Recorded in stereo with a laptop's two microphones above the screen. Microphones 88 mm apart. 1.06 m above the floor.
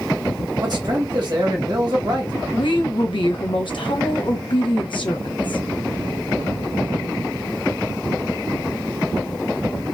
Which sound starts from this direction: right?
A man speaking, at 0.6 s.